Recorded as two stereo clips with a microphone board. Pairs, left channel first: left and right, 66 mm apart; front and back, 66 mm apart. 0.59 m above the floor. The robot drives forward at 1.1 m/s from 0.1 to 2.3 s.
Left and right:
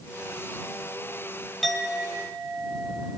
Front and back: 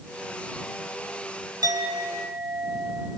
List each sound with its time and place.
1.6 s a clink: 175° left, 2 m